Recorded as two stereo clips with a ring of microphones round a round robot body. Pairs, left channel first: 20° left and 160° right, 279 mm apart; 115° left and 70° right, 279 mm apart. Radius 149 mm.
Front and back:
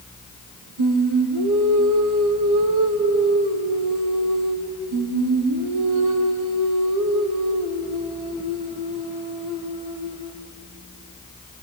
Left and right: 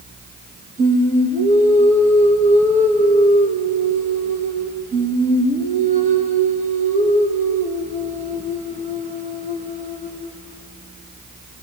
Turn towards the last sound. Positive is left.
turn(degrees=-135)